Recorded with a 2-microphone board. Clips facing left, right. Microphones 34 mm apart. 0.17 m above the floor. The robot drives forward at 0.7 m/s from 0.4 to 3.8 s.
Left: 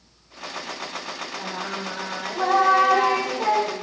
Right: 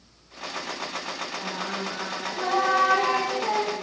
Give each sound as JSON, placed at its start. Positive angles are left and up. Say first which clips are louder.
{"t": 1.4, "sound": "singing", "louder": "left 2 dB", "side_deg": 45, "distance_m": 4.0}